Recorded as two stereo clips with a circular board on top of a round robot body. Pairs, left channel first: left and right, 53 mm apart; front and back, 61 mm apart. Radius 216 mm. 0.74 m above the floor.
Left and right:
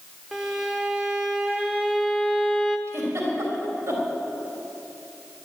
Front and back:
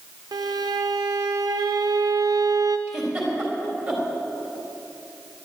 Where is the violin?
170° right, 0.5 m.